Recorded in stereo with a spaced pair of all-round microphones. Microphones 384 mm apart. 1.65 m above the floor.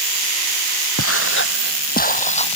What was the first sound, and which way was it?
Footsteps, 35° left (ahead or behind).